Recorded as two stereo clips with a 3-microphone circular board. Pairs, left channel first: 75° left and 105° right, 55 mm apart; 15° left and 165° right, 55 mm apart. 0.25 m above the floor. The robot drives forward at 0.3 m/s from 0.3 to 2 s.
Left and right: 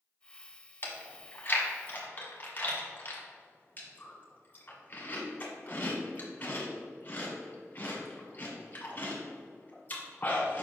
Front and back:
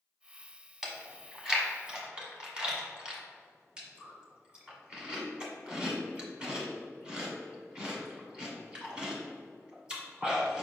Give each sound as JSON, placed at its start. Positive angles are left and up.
{"t": 0.8, "sound": "chewing", "azimuth_deg": 110, "distance_m": 1.6}